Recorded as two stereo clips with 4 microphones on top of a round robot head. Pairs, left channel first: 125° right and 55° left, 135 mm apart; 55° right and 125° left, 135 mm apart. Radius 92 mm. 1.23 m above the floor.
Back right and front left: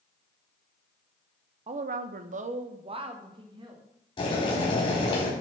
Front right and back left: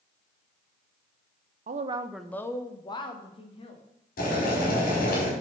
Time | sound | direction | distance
1.7 | a woman speaking | 100° left | 0.7 m
4.2 | boiling | 70° right | 5 m